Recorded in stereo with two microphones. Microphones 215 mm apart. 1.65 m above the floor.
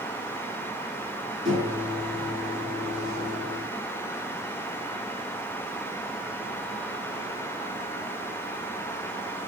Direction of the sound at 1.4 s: 60° right (ahead or behind).